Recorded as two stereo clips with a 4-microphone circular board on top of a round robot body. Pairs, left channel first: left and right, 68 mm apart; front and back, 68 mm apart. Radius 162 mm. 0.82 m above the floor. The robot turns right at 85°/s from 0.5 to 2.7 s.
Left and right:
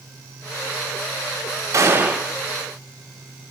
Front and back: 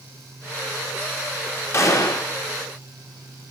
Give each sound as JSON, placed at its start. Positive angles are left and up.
{"t": 1.7, "sound": "a gunshot", "azimuth_deg": -50, "distance_m": 1.7}